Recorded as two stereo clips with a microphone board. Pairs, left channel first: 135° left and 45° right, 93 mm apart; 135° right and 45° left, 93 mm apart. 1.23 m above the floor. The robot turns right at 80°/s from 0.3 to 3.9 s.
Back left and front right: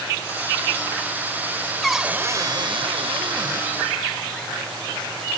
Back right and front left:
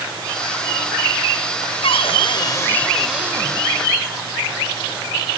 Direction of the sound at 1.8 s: 140° right.